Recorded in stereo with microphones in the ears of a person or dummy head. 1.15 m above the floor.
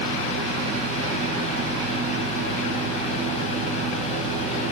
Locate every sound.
0.0 s a fan: 40° left (ahead or behind), 3 m